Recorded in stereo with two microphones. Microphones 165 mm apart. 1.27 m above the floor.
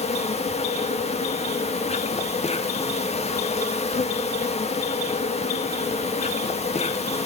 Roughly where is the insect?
Left.